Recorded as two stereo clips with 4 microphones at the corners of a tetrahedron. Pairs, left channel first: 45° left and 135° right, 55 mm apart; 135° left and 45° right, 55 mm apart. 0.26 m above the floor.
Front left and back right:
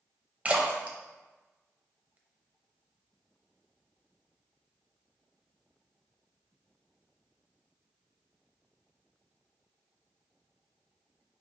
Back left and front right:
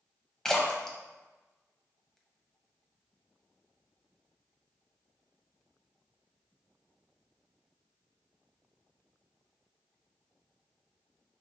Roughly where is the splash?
Behind right.